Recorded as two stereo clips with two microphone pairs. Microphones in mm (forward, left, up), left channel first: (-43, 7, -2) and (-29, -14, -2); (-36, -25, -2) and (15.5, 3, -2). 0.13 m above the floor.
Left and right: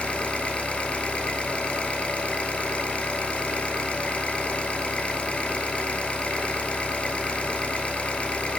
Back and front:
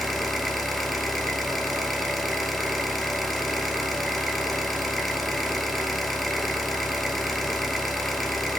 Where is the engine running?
120° left, 1.9 m.